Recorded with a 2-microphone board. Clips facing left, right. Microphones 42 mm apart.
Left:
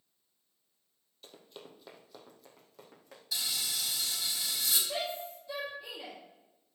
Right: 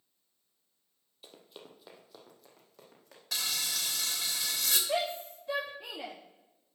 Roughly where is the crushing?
I don't hear crushing.